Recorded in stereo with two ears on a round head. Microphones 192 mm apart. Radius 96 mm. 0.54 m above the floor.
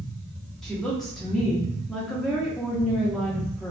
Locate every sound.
0.6 s a woman speaking: centre (ahead or behind), 0.6 m